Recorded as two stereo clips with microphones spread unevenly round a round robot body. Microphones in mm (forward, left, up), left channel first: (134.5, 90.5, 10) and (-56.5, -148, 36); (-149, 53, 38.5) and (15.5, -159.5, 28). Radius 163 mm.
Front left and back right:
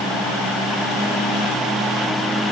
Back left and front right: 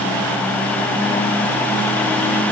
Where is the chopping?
I don't hear chopping.